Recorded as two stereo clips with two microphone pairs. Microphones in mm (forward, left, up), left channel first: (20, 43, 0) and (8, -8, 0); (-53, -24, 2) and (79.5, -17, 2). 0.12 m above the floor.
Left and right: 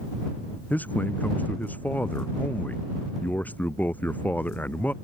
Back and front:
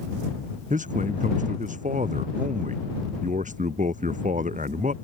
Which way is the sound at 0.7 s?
20° left.